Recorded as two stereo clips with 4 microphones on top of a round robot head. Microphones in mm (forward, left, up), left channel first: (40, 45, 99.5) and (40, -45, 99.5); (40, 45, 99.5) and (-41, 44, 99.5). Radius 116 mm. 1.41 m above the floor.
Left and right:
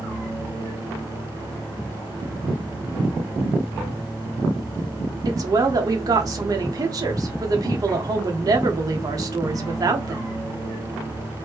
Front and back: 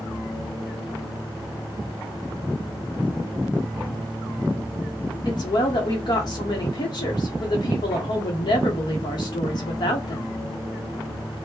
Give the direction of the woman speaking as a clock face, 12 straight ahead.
1 o'clock.